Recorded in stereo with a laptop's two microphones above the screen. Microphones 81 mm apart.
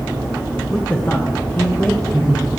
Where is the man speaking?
20° left (ahead or behind), 0.7 m; by 2.5 s 35° left (ahead or behind), 1.9 m.